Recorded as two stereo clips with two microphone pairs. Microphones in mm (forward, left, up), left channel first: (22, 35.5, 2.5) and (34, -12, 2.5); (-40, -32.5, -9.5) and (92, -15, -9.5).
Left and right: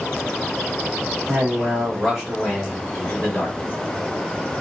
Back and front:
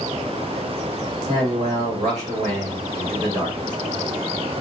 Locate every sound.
1.3 s a man speaking: 25° right, 1.4 m; by 3.8 s 55° left, 1.0 m